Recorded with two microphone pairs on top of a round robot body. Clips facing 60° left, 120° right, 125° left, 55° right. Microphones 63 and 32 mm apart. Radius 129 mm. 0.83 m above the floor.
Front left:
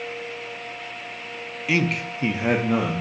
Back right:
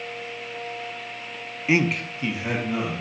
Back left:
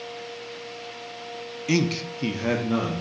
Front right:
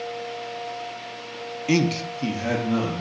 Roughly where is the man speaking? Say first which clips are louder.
Back right 1 dB, front right 2 dB; behind right.